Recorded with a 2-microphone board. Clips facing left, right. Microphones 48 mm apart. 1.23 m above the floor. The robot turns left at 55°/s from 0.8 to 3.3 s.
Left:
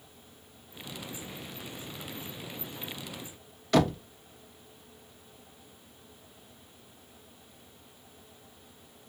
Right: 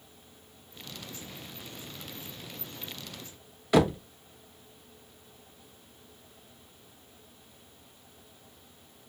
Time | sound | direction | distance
3.7 | knocking | 15° right (ahead or behind) | 0.6 m